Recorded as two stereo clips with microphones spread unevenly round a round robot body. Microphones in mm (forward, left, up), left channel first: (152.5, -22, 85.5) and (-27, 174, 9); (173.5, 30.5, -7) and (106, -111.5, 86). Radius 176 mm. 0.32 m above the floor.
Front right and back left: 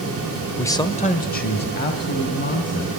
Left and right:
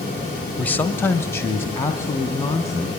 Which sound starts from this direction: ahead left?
A man speaking, at 0.6 s.